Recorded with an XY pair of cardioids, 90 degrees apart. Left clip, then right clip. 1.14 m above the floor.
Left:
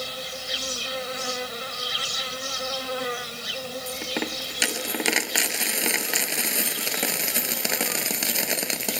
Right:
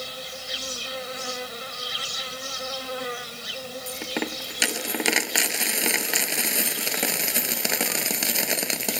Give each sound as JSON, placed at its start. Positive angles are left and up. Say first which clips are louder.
{"t": 0.0, "sound": "an insect", "louder": "left 2 dB", "azimuth_deg": 15}
{"t": 3.9, "sound": "a dropped coin", "louder": "even", "azimuth_deg": -10}